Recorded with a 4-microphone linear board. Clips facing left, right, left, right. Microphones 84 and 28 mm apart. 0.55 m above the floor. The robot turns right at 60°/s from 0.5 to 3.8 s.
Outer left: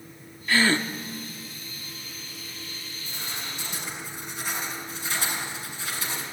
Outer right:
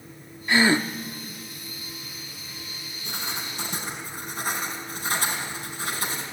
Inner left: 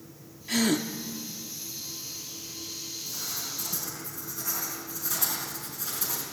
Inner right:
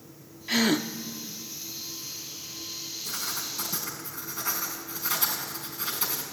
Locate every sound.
0.5 s a gasp: 20° right (ahead or behind), 0.8 m; by 0.9 s 10° right (ahead or behind), 0.8 m
3.0 s writing: 95° right, 5 m; by 6.2 s 50° right, 5 m